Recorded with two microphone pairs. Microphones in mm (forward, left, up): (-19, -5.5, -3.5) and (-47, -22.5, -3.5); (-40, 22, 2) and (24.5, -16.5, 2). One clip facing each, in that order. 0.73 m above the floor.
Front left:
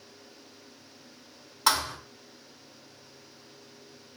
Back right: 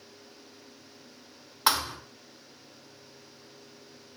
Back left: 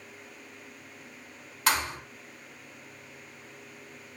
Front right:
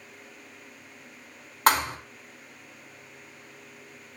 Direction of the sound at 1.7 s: 80° right.